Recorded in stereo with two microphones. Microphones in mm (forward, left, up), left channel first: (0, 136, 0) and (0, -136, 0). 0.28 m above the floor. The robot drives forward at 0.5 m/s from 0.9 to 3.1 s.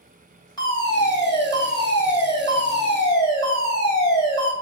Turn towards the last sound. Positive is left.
turn(degrees=15)  # may be behind; listen again after turning